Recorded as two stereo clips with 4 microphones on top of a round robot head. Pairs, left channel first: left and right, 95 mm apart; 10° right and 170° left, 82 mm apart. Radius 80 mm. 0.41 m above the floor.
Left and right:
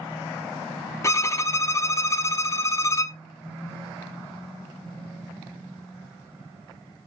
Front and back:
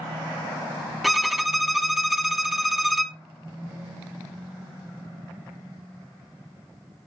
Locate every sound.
1.0 s a violin: 80° left, 0.9 m